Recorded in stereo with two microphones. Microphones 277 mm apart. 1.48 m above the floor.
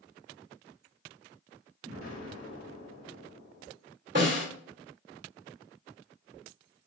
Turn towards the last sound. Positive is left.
turn(degrees=-40)  # may be behind; listen again after turning